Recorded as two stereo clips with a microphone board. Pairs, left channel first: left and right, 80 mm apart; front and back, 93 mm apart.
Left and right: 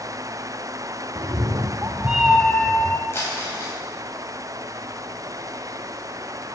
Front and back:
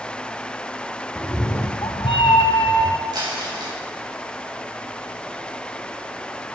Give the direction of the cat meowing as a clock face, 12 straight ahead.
2 o'clock.